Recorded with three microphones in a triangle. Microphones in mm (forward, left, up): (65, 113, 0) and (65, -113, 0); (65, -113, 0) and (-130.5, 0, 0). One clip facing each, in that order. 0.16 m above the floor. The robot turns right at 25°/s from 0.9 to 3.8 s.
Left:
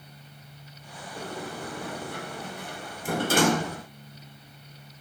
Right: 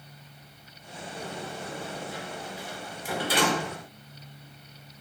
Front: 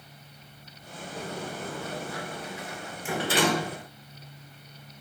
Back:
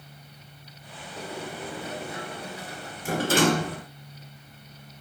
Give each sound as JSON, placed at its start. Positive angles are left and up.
{"t": 1.2, "sound": "a sliding door", "azimuth_deg": 65, "distance_m": 1.4}